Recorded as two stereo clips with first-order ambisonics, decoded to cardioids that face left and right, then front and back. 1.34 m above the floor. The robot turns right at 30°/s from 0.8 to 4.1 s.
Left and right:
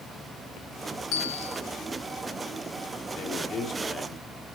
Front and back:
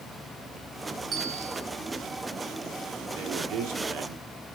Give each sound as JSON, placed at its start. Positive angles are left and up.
{"t": 1.1, "sound": "a bell", "azimuth_deg": 115, "distance_m": 10.0}
{"t": 3.1, "sound": "a man speaking", "azimuth_deg": 145, "distance_m": 4.0}